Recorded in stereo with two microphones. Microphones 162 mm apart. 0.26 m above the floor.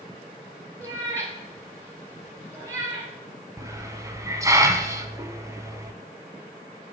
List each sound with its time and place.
0.8 s a cat meowing: 20° right (ahead or behind), 2 m
3.6 s a hiss: 20° right (ahead or behind), 0.7 m